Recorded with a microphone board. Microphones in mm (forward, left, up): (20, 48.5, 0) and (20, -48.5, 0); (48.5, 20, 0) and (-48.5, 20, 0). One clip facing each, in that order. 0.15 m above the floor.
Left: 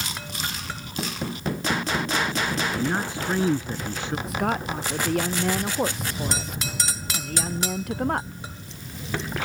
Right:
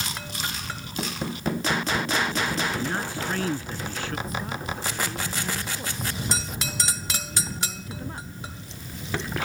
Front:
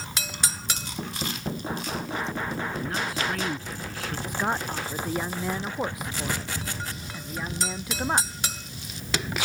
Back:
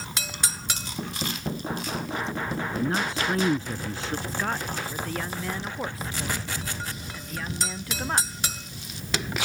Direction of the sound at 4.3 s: 75° left.